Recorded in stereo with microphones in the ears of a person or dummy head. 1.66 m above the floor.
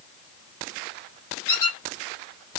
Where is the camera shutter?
No camera shutter in this recording.